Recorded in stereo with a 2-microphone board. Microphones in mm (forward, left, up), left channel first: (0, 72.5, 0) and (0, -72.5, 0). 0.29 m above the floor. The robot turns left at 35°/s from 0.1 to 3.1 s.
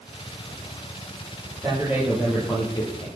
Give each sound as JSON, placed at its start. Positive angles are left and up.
{"t": 1.6, "sound": "a man speaking", "azimuth_deg": -160, "distance_m": 9.0}